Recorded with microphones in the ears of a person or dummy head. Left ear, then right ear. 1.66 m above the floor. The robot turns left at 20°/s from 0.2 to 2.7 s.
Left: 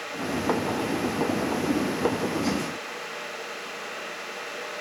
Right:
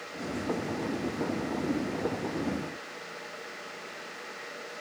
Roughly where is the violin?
No violin in this recording.